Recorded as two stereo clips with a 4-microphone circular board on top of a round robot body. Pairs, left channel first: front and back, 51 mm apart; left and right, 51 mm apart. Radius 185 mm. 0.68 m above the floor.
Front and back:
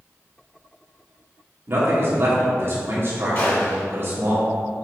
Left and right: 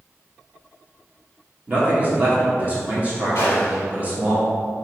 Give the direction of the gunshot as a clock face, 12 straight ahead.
10 o'clock.